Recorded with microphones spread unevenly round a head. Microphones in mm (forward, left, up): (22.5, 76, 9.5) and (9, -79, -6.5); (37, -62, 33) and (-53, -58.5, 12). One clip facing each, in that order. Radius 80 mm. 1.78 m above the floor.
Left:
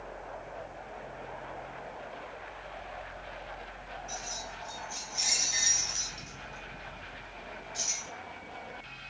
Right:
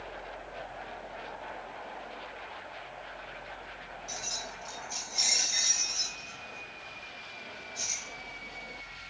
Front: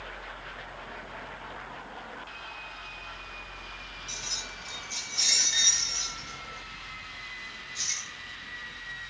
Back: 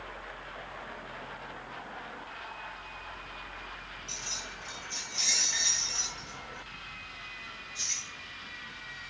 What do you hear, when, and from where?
4.1 s keys jangling: 60° right, 1.3 m; by 9.1 s 95° left, 2.5 m